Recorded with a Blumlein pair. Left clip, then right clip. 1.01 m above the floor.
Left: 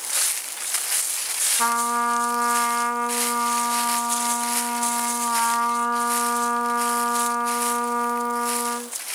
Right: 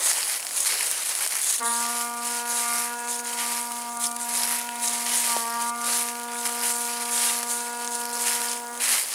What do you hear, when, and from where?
1.6 s a trumpet: 65° left, 0.6 m